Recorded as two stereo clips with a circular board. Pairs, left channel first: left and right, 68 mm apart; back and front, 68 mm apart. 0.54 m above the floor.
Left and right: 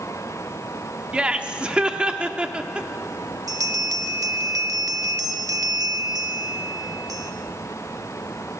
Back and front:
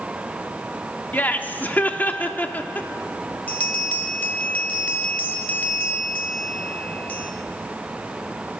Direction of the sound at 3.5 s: 115° right.